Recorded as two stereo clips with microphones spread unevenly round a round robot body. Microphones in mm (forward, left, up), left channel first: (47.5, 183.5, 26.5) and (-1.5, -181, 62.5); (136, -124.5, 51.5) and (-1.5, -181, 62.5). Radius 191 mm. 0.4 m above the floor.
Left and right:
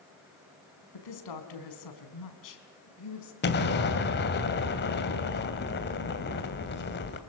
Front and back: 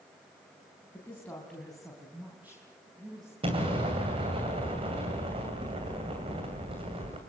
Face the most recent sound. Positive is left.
turn(degrees=140)